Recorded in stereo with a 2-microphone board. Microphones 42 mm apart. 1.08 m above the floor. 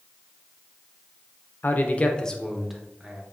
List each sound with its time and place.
1.6 s a man speaking: 50° left (ahead or behind), 0.7 m; by 3.2 s 15° right (ahead or behind), 1.2 m